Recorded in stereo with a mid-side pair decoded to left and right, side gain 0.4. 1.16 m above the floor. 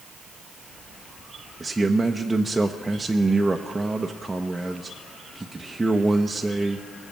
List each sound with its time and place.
1.6 s a man speaking: 20° right, 0.8 m